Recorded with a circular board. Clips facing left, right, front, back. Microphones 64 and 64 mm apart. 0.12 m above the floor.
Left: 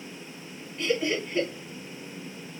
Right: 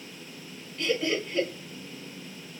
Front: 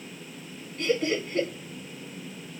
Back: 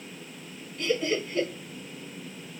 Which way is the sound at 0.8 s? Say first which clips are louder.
Left 1 dB, front 1 dB; 30° left.